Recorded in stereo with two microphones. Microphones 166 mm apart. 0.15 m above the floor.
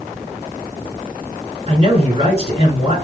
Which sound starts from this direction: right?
A man speaking, at 1.7 s.